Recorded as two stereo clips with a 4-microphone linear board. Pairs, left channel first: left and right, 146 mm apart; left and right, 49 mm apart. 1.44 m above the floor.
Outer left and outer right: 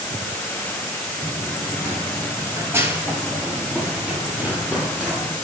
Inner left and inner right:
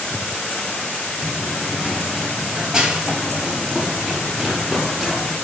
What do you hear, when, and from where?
1.2 s running footsteps: 20° right (ahead or behind), 1.5 m; by 5.3 s 5° right (ahead or behind), 3 m